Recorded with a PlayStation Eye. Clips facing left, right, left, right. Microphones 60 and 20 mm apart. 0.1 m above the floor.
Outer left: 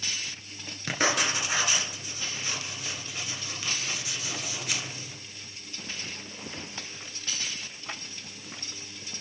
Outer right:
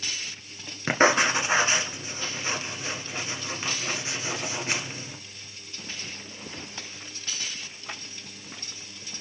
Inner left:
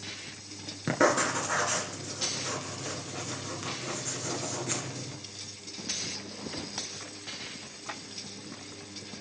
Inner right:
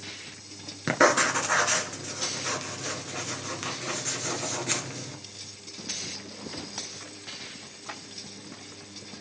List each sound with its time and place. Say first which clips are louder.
0.9 s writing: outer right 7 dB, inner right 4 dB; 35° right (ahead or behind), 1.5 m